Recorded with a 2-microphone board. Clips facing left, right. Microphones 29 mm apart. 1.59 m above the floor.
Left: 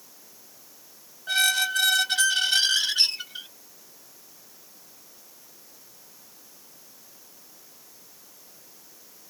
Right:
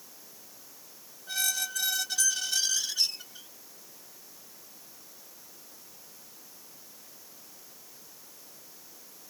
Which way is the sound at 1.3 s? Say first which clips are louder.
Left 10 dB; 50° left (ahead or behind).